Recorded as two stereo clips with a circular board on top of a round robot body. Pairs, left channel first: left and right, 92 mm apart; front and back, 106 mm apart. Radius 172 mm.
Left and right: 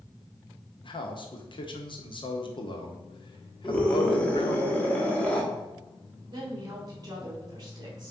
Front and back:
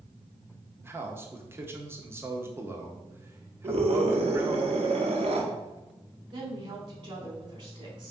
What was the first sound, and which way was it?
A man speaking, 110° left.